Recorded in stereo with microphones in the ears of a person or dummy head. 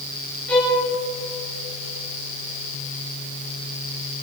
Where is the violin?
10° left (ahead or behind), 10 m.